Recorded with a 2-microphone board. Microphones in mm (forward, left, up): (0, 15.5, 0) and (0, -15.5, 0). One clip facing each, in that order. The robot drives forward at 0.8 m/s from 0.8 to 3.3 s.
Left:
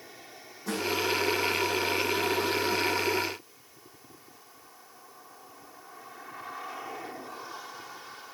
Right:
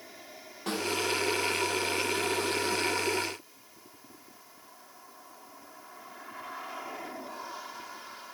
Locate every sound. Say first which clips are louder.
0.7 s a snare drum: left 1 dB; 80° right, 6 m